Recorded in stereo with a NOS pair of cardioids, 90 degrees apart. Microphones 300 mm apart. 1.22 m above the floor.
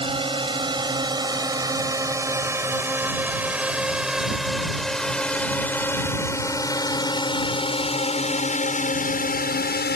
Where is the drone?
15° right; by 10.0 s 35° left.